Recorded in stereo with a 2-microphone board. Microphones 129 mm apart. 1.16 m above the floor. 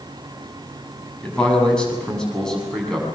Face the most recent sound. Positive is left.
turn(degrees=5)  # may be behind; listen again after turning